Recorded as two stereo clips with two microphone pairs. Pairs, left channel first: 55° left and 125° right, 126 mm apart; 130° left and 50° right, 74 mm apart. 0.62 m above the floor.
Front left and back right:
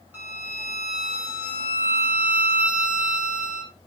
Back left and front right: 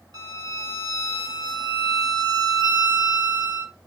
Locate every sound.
0.1 s a violin: 55° right, 2.0 m